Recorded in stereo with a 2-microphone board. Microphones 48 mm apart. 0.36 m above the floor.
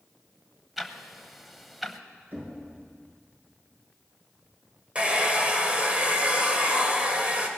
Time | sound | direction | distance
0.8 | ticking | centre (ahead or behind) | 0.9 m
2.3 | knocking | 45° right (ahead or behind) | 4 m
5.0 | a hair dryer | 25° right (ahead or behind) | 1.4 m